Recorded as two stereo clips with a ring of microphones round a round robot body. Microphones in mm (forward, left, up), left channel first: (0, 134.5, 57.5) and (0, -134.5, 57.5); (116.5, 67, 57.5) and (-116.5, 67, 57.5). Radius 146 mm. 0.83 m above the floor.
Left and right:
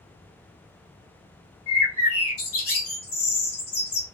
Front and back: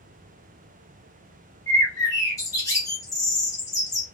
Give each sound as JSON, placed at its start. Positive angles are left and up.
{"t": 1.7, "sound": "a bird", "azimuth_deg": 75, "distance_m": 1.4}